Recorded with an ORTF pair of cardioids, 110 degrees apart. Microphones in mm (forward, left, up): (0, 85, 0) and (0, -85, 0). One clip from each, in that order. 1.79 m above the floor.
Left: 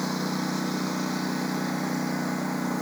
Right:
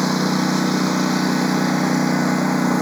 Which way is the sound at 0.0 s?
55° right.